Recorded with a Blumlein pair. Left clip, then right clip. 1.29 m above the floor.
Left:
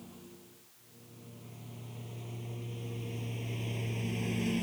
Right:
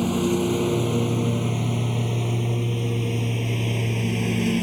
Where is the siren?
No siren in this recording.